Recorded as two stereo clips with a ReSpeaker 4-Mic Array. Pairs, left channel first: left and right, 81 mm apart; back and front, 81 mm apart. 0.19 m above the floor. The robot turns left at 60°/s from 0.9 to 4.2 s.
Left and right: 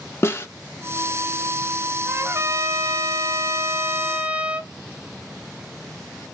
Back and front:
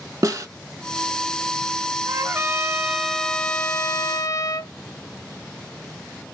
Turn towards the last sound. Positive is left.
turn(degrees=-160)